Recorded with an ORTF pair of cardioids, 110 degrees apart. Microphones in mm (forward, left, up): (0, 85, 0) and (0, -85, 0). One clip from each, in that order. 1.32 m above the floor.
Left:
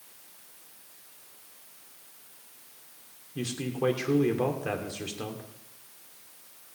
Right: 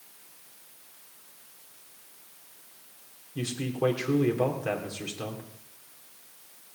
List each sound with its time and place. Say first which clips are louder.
3.4 s a man speaking: right 1 dB; 5° left, 3 m